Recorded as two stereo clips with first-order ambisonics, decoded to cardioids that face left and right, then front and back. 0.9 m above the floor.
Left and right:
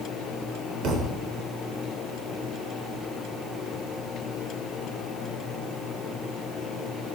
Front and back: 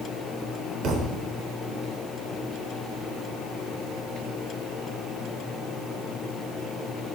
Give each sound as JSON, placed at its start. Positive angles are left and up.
{"t": 0.8, "sound": "a thud", "azimuth_deg": -135, "distance_m": 1.0}